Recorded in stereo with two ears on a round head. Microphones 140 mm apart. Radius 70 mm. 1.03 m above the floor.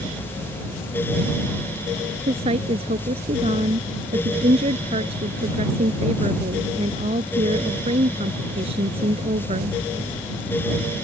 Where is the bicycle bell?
I don't hear a bicycle bell.